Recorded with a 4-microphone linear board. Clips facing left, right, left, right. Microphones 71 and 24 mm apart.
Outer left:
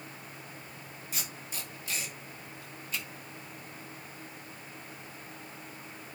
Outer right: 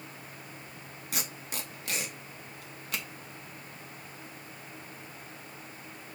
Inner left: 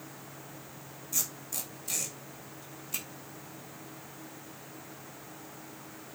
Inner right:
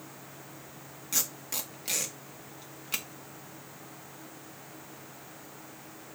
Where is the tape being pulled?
70° right (ahead or behind), 2 m.